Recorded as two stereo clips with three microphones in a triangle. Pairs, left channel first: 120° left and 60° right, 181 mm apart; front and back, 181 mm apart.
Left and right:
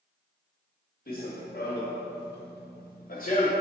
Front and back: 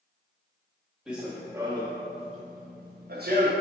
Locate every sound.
1.1 s running footsteps: 95° left, 1.1 m; by 3.5 s 165° left, 1.2 m